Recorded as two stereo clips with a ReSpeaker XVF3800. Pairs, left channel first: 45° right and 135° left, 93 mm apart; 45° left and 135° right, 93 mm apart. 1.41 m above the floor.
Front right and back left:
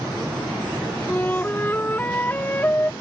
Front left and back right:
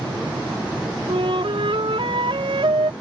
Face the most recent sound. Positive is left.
turn(degrees=-115)